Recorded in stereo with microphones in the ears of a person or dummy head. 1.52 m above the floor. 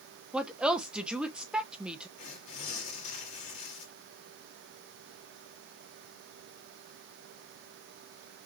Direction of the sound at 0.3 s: 5° right (ahead or behind).